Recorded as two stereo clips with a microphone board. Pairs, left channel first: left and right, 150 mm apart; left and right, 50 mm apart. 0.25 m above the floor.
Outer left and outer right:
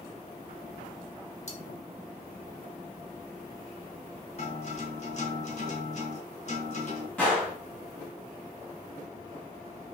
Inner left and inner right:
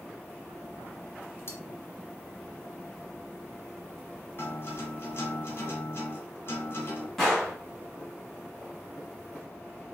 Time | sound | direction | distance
1.5 | cutlery clinking | 50° left (ahead or behind) | 1.0 m
4.4 | a guitar | 50° left (ahead or behind) | 1.9 m
7.2 | a gunshot | 5° left (ahead or behind) | 2 m